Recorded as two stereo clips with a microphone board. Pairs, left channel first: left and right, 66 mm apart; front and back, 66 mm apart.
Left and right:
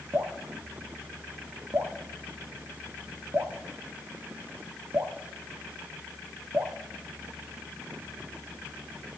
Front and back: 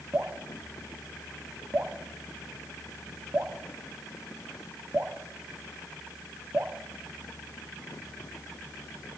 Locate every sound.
0.1 s dripping: 130° right, 1.8 m